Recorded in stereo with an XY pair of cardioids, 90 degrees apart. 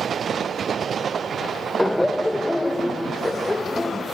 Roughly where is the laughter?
Ahead.